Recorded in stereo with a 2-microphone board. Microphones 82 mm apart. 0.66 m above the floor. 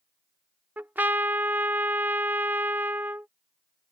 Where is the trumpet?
20° right (ahead or behind).